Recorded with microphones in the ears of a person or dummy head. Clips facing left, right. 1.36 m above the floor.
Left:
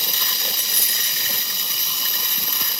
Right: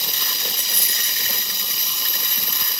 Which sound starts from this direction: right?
A dropped coin, at 0.5 s.